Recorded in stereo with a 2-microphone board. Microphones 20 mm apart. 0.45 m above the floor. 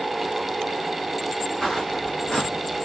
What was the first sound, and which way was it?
Footsteps, 35° left (ahead or behind).